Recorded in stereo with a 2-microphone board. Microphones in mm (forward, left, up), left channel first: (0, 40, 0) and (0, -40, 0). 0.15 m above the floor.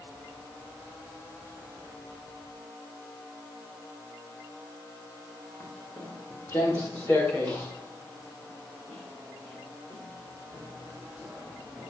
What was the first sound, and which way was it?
Footsteps, 40° left (ahead or behind).